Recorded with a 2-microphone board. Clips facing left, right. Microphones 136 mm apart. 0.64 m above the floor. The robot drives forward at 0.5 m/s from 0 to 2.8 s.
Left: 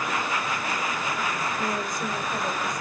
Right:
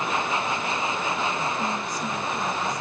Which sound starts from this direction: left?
A woman speaking, at 1.6 s.